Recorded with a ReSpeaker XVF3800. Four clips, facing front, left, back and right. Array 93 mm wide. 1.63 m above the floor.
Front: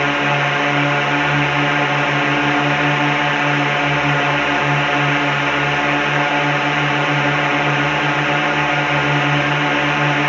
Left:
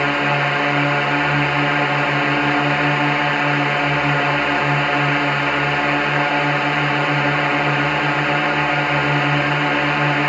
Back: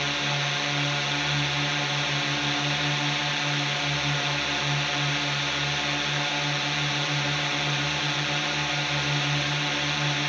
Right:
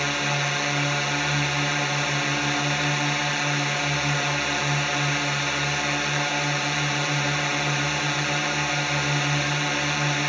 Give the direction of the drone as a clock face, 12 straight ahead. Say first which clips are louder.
Left 8 dB, front 12 dB; 11 o'clock.